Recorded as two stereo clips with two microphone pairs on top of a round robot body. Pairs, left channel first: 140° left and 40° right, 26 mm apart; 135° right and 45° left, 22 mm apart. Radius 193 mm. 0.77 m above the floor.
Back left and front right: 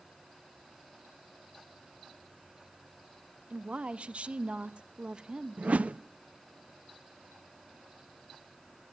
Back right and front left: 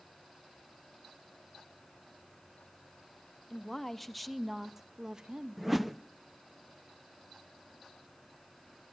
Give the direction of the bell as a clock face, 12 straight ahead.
I don't hear a bell.